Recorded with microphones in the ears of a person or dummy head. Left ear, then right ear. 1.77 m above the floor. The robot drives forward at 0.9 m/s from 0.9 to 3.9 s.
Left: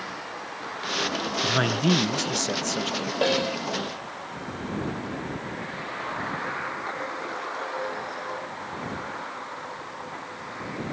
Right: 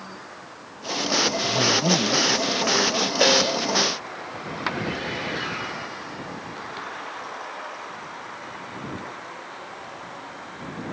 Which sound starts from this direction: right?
A snare drum, at 3.2 s.